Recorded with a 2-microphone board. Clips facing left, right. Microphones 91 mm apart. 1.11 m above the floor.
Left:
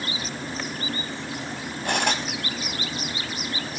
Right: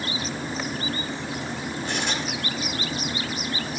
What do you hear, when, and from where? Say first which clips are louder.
1.9 s cutlery clinking: left 5 dB; 65° left (ahead or behind), 5 m